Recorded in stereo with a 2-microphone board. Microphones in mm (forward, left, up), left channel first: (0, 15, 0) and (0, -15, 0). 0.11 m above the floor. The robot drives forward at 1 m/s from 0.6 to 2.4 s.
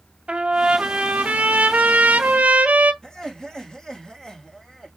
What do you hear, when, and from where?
0.3 s a trumpet: 40° right (ahead or behind), 1.7 m; by 2.9 s 50° right (ahead or behind), 1.4 m
3.0 s laughter: 25° left (ahead or behind), 5 m